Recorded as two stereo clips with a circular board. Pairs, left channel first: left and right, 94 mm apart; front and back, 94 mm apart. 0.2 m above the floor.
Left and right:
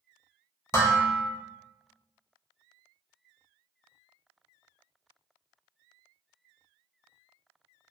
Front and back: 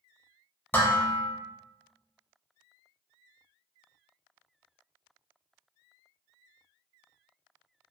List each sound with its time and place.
0.7 s dishes clattering: 55° left, 0.8 m